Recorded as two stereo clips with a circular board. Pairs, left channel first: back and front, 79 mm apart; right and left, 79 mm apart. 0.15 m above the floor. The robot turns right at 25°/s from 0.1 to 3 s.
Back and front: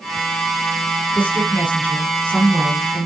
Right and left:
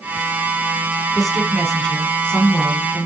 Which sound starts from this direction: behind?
A woman speaking, at 1.1 s.